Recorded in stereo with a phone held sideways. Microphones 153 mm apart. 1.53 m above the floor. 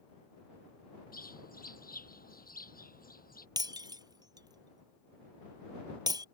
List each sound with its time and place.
1.1 s a bird: 70° left (ahead or behind)
3.6 s breaking glass: 25° right (ahead or behind)